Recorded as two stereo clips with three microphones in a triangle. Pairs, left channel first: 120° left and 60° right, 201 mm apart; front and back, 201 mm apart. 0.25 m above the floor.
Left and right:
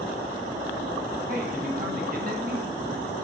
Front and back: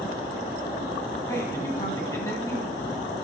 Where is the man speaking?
70° right, 1.9 m.